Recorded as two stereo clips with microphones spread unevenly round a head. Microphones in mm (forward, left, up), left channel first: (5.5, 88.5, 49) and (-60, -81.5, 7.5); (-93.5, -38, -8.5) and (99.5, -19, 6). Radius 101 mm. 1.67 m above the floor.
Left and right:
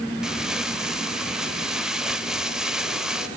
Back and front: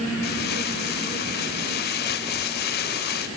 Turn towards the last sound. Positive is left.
turn(degrees=155)